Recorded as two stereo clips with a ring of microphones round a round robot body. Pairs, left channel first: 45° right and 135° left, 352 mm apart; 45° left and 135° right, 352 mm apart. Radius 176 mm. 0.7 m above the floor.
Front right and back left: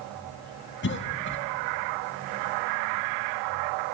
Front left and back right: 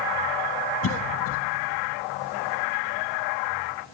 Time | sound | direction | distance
0.8 | a cough | 5° left | 1.6 m